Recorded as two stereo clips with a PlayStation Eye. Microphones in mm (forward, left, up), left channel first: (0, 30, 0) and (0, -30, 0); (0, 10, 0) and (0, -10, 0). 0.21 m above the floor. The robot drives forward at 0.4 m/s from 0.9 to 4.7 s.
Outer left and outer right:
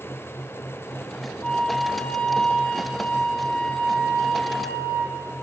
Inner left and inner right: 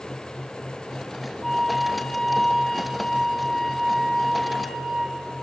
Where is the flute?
15° left (ahead or behind), 1.6 m; by 5.2 s 10° left (ahead or behind), 3 m.